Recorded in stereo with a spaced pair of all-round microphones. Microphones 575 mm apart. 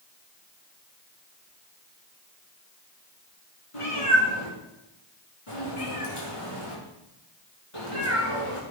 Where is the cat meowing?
70° left (ahead or behind), 4.5 m.